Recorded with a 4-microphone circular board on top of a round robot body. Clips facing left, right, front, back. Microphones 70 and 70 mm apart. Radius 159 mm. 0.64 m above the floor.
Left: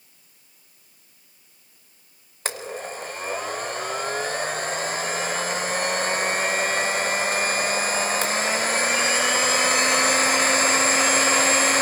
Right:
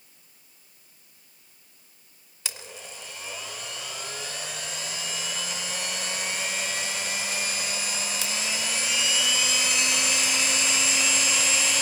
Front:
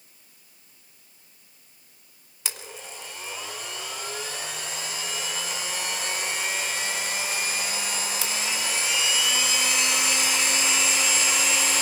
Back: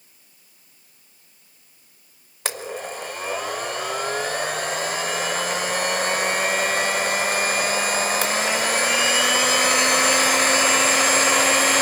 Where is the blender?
135° left, 0.5 m.